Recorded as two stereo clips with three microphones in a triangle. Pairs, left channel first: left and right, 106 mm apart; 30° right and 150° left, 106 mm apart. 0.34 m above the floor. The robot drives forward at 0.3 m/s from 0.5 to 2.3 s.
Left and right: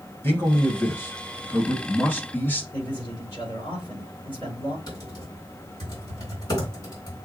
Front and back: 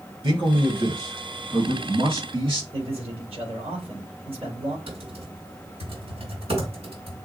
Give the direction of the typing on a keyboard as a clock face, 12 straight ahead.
8 o'clock.